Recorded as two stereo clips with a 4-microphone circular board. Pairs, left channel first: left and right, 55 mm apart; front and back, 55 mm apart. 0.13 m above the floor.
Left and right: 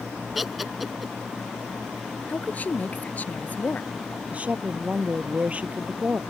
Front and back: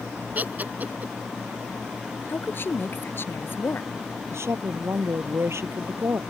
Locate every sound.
0.3 s laughter: 175° right
2.3 s a woman speaking: 35° left
4.3 s a woman speaking: 155° right